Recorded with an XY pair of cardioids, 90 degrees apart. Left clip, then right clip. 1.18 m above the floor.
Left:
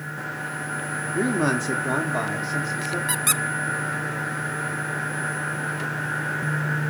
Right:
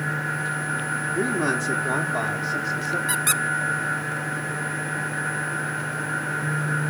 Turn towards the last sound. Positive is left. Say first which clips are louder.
# right 1 dB
turn(degrees=10)